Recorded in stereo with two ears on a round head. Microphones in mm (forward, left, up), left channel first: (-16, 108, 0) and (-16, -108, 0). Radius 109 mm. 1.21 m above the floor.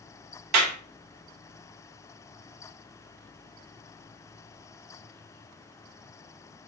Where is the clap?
80° right, 1.0 m.